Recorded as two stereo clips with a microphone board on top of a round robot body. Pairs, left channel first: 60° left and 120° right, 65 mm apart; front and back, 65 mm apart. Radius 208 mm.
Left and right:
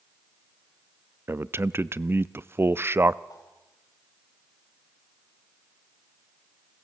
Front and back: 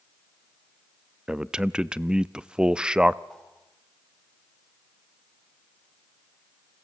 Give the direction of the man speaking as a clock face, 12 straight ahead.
4 o'clock.